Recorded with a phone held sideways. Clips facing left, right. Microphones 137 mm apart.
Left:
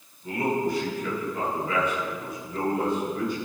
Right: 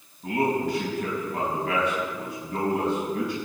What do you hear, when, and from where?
0.2 s a man speaking: 85° right, 5.5 m